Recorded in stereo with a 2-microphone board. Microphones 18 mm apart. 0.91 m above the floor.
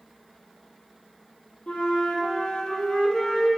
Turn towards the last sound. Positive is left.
turn(degrees=65)  # may be behind; listen again after turning